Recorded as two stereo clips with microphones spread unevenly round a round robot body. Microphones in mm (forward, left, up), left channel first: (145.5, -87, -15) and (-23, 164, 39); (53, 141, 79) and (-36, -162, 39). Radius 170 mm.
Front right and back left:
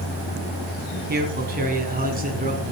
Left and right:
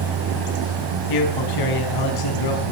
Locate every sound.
1.1 s a man speaking: 65° left, 4.5 m; by 2.7 s 60° left, 5.5 m